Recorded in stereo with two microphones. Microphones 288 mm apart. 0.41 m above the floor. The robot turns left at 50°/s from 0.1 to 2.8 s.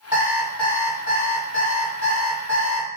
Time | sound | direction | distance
0.1 | an alarm clock | 160° right | 1.5 m